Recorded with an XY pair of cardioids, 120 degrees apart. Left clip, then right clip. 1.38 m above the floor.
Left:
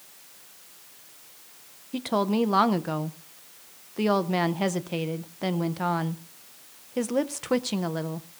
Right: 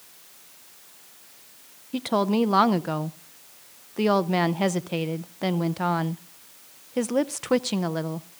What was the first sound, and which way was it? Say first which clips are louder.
A woman speaking: right 2 dB; 15° right.